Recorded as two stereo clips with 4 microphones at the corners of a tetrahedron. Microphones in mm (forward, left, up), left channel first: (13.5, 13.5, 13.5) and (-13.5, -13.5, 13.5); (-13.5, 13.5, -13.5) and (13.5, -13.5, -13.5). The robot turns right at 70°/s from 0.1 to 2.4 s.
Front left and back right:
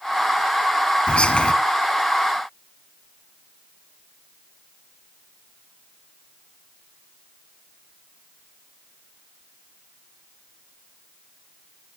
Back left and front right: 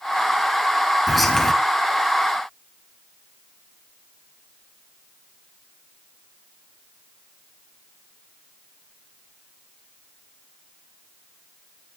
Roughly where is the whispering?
Ahead left.